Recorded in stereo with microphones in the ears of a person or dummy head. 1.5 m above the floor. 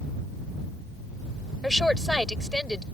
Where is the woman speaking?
Centre (ahead or behind).